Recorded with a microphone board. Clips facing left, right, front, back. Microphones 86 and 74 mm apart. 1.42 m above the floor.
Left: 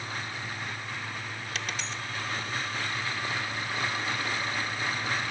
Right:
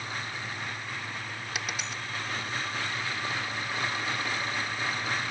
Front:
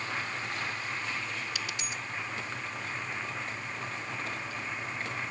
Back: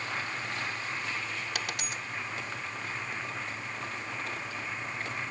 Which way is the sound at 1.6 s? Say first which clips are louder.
Even, back 1 dB; 170° right.